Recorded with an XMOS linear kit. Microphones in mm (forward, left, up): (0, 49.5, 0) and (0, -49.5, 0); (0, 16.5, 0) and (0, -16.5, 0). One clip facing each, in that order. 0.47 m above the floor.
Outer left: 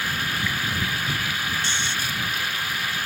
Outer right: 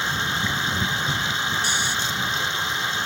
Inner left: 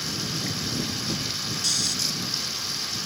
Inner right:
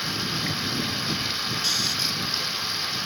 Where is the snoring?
10° right (ahead or behind).